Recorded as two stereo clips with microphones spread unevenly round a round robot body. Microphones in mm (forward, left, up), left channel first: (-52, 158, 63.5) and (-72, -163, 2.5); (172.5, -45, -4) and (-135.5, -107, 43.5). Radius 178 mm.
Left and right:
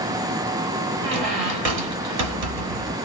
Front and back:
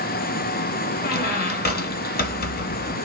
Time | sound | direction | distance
1.0 | a squeak | 50° right | 0.8 m